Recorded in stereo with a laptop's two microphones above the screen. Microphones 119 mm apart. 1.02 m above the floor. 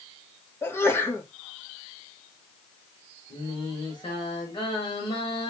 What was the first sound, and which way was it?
A sneeze, 20° left (ahead or behind).